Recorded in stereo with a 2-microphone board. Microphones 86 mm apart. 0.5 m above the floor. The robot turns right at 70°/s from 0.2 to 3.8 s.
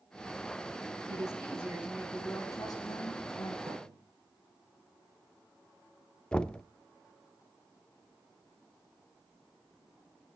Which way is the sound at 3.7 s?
80° right.